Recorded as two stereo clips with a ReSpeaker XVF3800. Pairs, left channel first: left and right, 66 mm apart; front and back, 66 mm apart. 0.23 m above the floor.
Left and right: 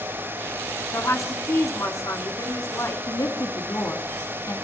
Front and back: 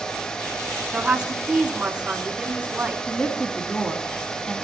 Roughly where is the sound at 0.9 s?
Left.